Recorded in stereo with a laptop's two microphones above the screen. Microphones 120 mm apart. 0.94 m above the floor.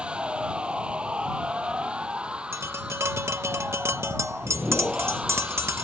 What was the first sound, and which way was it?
A machine running, 10° right (ahead or behind).